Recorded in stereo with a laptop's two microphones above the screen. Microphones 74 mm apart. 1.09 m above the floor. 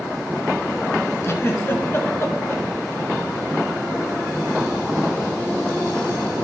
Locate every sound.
1.2 s a giggle: 35° left (ahead or behind), 1.1 m